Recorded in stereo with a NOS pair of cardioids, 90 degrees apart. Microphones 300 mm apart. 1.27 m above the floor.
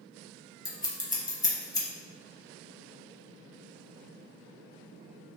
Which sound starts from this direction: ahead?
Scissors, at 0.7 s.